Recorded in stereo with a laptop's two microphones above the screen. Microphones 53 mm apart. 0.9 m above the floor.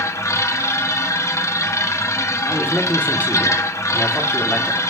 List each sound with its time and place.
0.0 s a machine running: 65° left (ahead or behind), 1.1 m
2.5 s a man speaking: 30° left (ahead or behind), 1.5 m